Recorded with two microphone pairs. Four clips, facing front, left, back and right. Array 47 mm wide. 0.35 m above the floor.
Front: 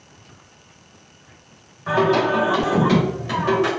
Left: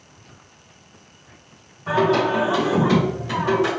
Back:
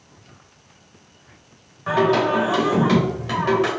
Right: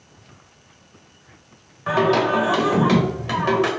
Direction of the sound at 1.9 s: 100° right.